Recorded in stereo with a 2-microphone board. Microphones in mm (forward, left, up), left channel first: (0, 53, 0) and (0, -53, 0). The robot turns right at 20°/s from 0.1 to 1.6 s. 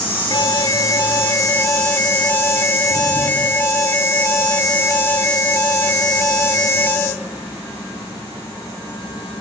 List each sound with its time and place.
0.3 s an alarm: 40° left (ahead or behind), 1.4 m; by 7.2 s 25° left (ahead or behind), 1.4 m